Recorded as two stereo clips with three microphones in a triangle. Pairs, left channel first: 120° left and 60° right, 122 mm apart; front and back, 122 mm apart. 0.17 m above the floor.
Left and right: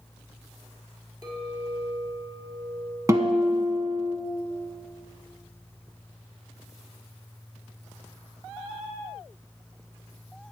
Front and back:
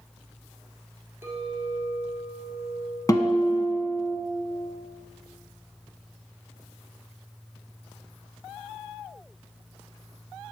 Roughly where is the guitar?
Ahead right.